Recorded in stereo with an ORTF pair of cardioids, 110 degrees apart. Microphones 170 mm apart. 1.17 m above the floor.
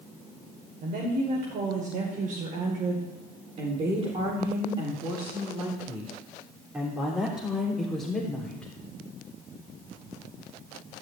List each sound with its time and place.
0.8 s a woman speaking: 60° right, 5 m; by 8.7 s 5° left, 4 m